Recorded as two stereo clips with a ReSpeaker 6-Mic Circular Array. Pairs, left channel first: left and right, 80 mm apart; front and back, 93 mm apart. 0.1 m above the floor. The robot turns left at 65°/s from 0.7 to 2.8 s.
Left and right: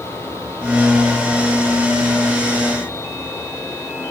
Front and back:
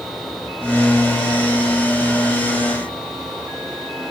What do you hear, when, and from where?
Only background noise.